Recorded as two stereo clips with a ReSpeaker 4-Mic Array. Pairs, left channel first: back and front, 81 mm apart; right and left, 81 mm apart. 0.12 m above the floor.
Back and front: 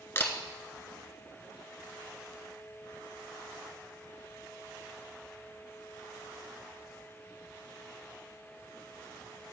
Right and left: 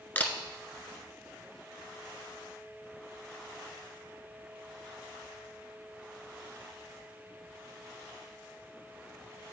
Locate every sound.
0.1 s a camera shutter: 145° right, 0.9 m